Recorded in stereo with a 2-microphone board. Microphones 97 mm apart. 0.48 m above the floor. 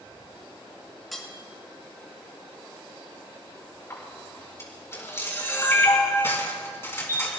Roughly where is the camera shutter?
Left.